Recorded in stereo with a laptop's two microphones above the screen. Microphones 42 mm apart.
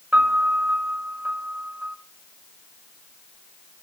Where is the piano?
55° right (ahead or behind), 1.0 m.